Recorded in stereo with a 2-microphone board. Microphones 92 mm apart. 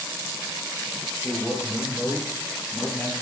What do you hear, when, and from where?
1.2 s a man speaking: 15° right (ahead or behind), 6 m; by 3.1 s 10° left (ahead or behind), 5.5 m